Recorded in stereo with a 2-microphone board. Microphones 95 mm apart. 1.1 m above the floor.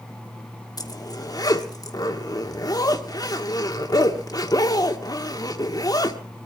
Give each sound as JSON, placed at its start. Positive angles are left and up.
{"t": 0.8, "sound": "a zipper", "side_deg": 40, "distance_m": 1.5}